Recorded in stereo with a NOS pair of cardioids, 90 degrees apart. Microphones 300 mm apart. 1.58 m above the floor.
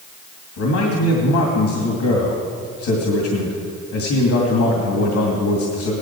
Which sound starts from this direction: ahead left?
A man speaking, at 0.6 s.